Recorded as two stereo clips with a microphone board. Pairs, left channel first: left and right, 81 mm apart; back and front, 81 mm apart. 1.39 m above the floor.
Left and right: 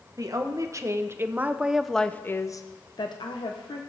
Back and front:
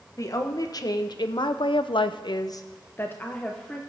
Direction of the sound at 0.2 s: 135° right.